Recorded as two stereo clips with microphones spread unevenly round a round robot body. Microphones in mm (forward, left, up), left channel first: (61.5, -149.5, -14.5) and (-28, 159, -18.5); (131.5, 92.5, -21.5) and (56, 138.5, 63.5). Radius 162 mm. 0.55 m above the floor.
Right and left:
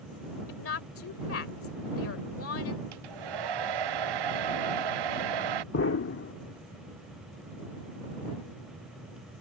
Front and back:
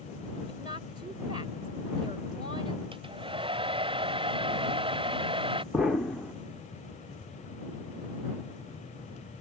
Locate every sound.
0.5 s a woman speaking: 125° right
2.9 s a hair dryer: 130° left
5.7 s an explosion: 40° right